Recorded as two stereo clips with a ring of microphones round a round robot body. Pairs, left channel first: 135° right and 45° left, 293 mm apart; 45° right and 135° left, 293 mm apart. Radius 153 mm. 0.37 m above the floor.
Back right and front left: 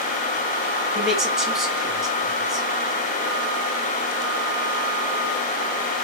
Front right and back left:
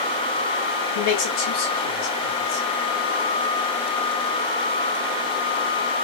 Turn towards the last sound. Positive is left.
turn(degrees=-45)